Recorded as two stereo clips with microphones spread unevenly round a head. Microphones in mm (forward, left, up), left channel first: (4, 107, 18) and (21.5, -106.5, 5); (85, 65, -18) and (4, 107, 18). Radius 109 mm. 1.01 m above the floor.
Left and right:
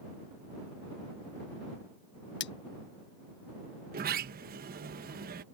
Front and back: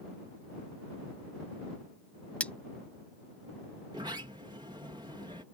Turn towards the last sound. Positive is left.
turn(degrees=-130)